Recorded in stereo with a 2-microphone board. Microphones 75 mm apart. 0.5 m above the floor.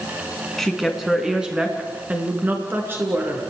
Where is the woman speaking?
Centre (ahead or behind), 4.5 m; by 3.4 s 35° right (ahead or behind), 6.5 m.